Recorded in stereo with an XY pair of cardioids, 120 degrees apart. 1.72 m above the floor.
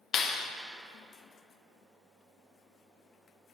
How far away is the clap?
About 0.9 m.